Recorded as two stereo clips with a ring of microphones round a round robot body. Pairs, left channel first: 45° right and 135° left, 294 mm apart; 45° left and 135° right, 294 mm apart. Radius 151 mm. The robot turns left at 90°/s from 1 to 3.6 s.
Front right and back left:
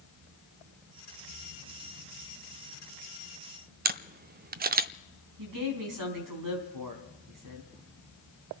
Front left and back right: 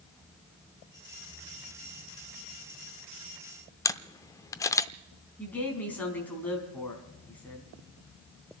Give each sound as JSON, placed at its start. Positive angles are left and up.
{"t": 3.9, "sound": "a camera shutter", "azimuth_deg": 115, "distance_m": 0.6}
{"t": 5.4, "sound": "a woman speaking", "azimuth_deg": 130, "distance_m": 4.0}